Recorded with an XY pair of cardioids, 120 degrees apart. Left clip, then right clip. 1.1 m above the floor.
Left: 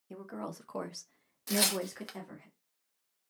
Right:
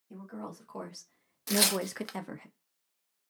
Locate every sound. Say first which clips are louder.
0.1 s a woman speaking: left 2 dB; 45° left, 0.9 m; by 2.5 s 60° right, 0.6 m
1.5 s tearing paper: right 3 dB; 20° right, 0.6 m